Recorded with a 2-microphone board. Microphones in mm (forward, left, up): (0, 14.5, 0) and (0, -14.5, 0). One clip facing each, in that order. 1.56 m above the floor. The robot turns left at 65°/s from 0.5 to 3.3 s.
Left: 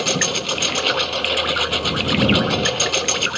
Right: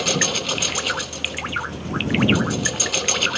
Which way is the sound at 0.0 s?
175° left.